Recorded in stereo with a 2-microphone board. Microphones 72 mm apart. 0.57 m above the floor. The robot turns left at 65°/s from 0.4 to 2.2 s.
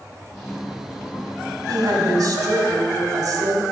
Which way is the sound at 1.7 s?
65° right.